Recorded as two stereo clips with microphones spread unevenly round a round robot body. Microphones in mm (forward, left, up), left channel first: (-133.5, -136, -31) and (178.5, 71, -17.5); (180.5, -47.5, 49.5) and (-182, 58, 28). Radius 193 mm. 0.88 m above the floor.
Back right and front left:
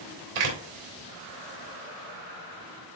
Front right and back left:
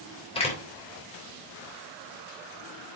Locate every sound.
0.3 s a door slam: 60° left, 3 m